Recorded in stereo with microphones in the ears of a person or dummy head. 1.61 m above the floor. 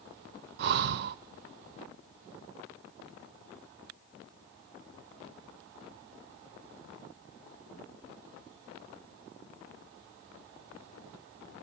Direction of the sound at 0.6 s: 60° right (ahead or behind).